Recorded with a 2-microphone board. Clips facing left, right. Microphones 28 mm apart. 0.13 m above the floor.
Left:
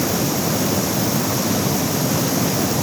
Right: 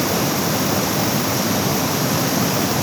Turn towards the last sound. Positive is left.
No sound to turn to.